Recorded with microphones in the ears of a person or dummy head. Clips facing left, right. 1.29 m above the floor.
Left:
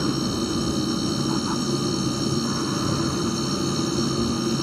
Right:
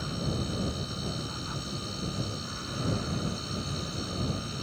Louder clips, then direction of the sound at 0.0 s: Left 10 dB; 70° left (ahead or behind).